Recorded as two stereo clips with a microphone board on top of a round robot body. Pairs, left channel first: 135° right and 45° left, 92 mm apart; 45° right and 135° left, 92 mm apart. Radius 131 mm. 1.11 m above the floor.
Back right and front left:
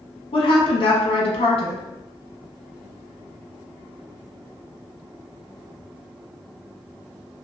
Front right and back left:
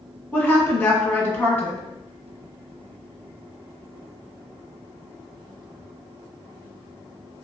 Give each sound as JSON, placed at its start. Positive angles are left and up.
{"t": 0.3, "sound": "a woman speaking", "azimuth_deg": -115, "distance_m": 0.8}